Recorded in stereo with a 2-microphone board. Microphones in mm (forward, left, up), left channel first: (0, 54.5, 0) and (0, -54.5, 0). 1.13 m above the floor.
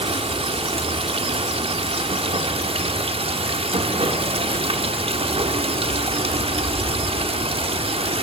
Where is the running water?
60° right (ahead or behind), 1.1 m.